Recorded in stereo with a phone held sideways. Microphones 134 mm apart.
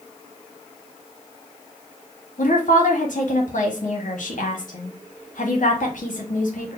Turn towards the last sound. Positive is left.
turn(degrees=75)  # may be behind; listen again after turning